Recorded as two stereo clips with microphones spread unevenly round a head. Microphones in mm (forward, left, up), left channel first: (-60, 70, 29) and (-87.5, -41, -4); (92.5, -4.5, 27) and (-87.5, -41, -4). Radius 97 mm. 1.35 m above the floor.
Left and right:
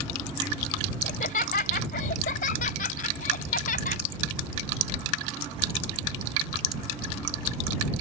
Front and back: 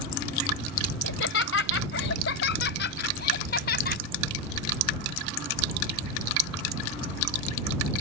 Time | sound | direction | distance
1.0 | laughter | 40° left | ?